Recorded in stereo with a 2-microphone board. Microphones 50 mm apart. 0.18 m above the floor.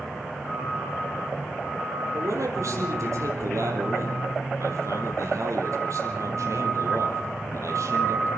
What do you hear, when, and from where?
2.1 s a man speaking: 75° right (ahead or behind), 5.5 m